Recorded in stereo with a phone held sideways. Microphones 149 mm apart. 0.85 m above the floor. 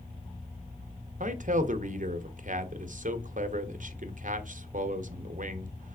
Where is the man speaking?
60° right (ahead or behind), 0.6 m.